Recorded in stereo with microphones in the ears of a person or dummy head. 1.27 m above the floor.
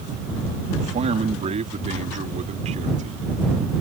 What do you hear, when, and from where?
0.8 s a man speaking: 30° right (ahead or behind); by 3.2 s 35° right (ahead or behind)